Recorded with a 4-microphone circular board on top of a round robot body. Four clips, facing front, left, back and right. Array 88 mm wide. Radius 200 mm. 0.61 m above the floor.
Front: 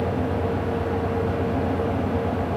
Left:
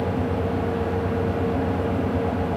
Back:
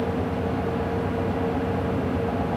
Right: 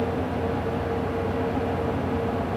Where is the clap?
I don't hear a clap.